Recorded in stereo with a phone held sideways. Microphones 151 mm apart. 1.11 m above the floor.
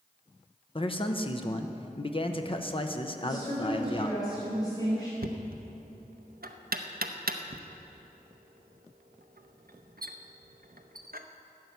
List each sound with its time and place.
0.8 s a man speaking: 35° left (ahead or behind), 0.8 m
3.2 s a woman speaking: 25° left (ahead or behind), 4 m
5.2 s knocking: 80° right, 0.7 m